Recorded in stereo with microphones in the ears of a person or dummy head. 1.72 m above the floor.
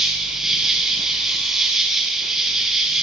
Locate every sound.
0.0 s an insect: centre (ahead or behind), 1.8 m